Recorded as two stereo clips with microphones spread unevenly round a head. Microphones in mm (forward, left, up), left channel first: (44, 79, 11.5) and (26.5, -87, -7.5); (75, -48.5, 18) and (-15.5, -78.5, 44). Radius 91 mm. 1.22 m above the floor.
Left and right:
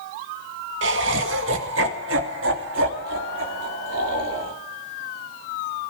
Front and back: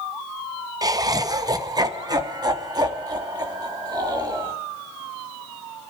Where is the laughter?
105° right, 1.5 m; by 4.5 s 115° right, 3.5 m.